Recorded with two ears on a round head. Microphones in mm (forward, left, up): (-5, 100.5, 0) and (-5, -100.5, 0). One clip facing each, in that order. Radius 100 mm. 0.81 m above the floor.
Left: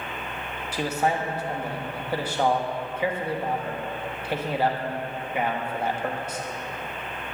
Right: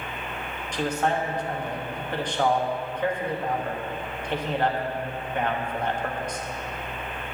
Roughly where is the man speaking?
Centre.